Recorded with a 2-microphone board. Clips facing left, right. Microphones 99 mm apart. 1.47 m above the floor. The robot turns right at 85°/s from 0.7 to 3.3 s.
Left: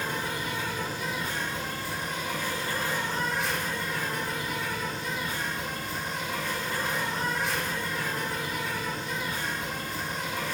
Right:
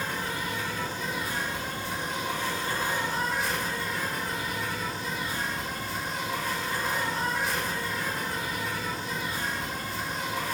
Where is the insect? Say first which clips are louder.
Even; 20° left (ahead or behind), 0.8 m; by 10.6 s centre (ahead or behind), 0.8 m.